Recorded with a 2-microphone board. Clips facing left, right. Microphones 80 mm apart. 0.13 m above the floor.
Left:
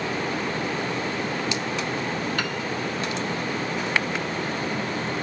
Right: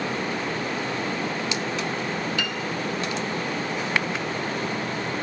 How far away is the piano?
About 0.7 m.